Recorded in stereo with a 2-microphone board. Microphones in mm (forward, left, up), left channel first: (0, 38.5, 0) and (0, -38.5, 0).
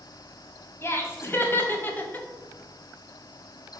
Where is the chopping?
No chopping in this recording.